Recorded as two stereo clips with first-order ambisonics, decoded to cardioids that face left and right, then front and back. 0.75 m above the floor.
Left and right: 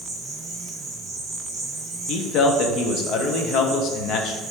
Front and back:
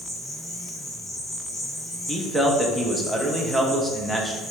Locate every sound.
0.0 s an insect: 50° right, 1.8 m
2.1 s a man speaking: 90° left, 0.6 m